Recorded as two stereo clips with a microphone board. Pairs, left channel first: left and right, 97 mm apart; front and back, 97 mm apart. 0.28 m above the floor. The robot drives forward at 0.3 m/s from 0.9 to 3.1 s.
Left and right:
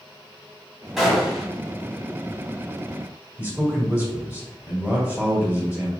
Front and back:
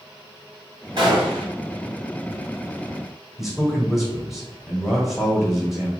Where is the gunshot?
175° right, 1.6 m.